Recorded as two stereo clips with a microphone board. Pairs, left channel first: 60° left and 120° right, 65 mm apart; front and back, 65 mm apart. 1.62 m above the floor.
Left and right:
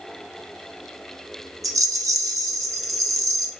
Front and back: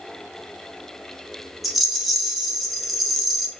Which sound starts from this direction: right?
A rattle, at 1.6 s.